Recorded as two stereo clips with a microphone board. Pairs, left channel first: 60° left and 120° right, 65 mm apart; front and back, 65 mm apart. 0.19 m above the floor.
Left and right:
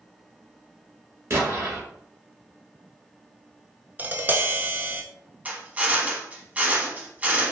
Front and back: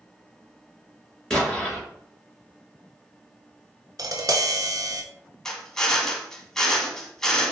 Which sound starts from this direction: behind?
Tapping, at 4.0 s.